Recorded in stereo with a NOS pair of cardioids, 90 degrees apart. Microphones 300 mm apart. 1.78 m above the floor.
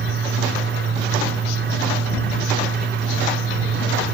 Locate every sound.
0.0 s a fan: 40° right